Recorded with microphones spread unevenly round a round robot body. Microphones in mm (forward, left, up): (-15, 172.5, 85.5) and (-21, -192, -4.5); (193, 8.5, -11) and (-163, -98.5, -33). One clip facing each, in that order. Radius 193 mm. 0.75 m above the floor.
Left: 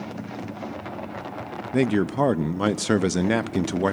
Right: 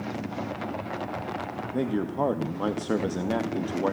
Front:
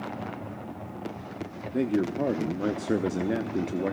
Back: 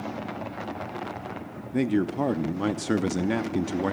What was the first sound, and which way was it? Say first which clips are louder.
A man speaking: left 6 dB, back 2 dB; 130° left.